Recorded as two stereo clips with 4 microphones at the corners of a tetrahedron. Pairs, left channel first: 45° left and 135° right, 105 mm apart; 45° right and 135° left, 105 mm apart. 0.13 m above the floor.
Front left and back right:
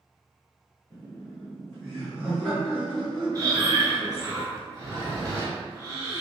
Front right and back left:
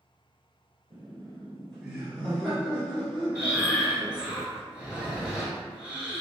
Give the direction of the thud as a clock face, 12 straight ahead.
I don't hear a thud.